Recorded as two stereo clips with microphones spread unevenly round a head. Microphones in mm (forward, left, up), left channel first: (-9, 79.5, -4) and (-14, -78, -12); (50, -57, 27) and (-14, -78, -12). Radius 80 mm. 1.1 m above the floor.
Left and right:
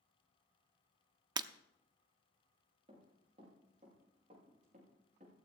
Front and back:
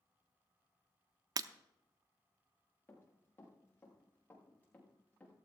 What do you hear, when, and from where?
1.4 s breaking glass: 125° right, 0.6 m
2.9 s running footsteps: 35° right, 6.5 m; by 5.3 s 45° right, 7 m